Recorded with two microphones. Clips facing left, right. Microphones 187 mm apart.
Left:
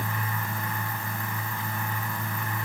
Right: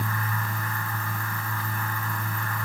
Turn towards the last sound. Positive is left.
No sound to turn to.